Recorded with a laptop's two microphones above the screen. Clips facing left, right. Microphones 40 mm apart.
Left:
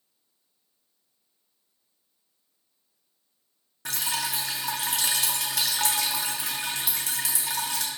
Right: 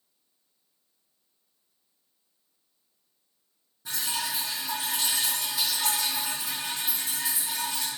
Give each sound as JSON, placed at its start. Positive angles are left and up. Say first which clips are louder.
{"t": 3.9, "sound": "dripping", "louder": "left 2 dB", "side_deg": 75, "distance_m": 0.5}